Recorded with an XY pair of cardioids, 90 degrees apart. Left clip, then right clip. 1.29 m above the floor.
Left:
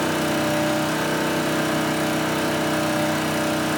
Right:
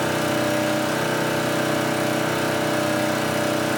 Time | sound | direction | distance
0.0 | an engine running | 5° left | 2.5 m